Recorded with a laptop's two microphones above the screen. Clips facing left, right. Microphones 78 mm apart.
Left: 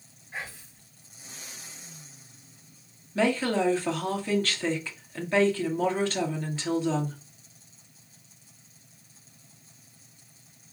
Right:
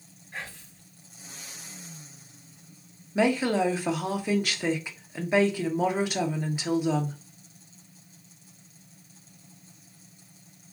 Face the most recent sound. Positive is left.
turn(degrees=-15)  # may be behind; listen again after turning